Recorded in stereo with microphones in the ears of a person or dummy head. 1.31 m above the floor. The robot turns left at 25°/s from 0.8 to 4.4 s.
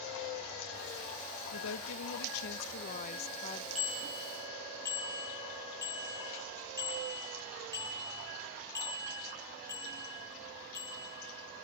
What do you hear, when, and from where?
1.5 s a woman speaking: 80° left, 1.0 m; by 3.6 s 30° left, 1.0 m
3.8 s a bicycle bell: centre (ahead or behind), 7 m; by 11.1 s 20° left (ahead or behind), 7 m